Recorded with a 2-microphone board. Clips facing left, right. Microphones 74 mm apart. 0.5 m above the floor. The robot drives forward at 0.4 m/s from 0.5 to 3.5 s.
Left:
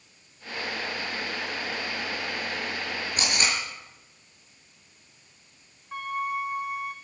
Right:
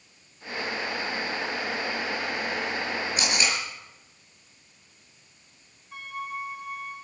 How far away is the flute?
About 2.5 m.